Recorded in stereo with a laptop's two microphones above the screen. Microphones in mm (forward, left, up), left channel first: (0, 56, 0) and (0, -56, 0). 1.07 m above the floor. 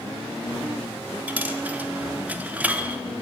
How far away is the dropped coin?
About 0.7 m.